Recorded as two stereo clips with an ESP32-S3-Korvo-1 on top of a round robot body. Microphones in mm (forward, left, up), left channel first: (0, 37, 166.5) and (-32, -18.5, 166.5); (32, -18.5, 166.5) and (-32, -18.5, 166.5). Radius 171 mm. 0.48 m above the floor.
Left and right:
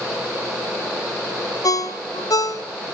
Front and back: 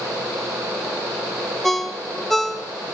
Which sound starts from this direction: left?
A ringtone, at 1.6 s.